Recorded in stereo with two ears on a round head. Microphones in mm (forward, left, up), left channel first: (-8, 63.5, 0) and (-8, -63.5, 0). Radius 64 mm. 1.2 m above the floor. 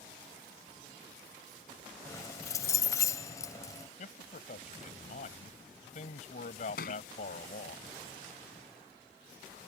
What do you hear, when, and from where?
2.0 s keys jangling: 25° left (ahead or behind)
4.0 s a man speaking: 60° left (ahead or behind)
6.8 s a thud: 80° left